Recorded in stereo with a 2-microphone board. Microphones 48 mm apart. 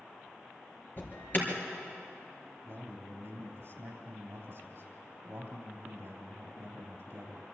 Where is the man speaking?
45° right (ahead or behind), 3.5 m.